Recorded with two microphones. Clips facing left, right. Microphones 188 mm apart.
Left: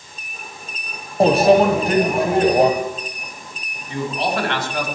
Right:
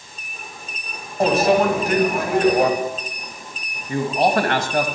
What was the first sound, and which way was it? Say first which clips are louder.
A microwave: left 4 dB; 35° left (ahead or behind).